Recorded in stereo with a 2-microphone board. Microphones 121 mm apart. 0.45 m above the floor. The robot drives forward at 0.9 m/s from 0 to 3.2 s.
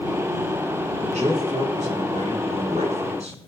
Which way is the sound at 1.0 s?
75° right (ahead or behind).